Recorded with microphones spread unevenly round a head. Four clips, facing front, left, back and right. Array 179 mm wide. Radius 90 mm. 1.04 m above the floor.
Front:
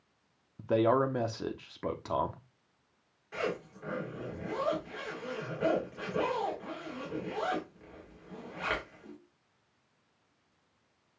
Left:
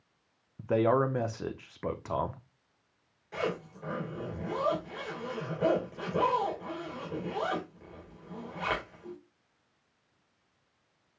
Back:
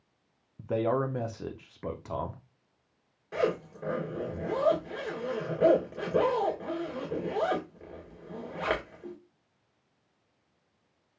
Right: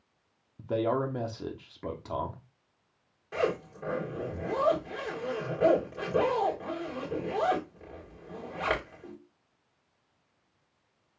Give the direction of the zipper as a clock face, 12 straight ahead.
5 o'clock.